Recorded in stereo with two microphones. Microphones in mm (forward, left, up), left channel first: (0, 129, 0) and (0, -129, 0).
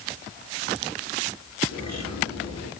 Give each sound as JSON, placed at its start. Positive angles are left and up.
{"t": 1.7, "sound": "a bird", "side_deg": 85, "distance_m": 9.5}